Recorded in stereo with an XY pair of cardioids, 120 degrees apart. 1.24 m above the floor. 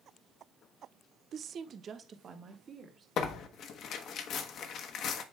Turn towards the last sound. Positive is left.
turn(degrees=65)